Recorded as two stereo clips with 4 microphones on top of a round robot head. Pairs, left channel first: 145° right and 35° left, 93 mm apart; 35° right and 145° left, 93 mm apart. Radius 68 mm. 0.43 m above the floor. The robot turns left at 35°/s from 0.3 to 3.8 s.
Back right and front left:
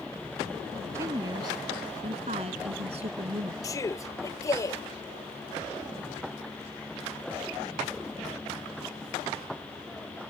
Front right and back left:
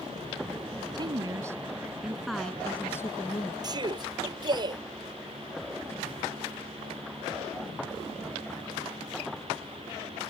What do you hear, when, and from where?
0.9 s a woman speaking: 100° left; by 3.5 s 10° left
3.6 s a man speaking: 175° left; by 4.8 s 165° left